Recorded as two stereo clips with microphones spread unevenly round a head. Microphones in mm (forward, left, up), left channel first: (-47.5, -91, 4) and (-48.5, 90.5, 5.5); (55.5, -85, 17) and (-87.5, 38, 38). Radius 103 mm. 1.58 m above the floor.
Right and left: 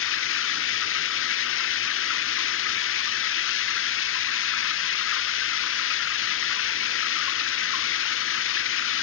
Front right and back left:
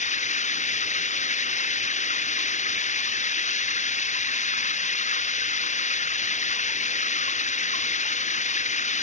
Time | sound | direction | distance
0.0 | running water | 95° right | ?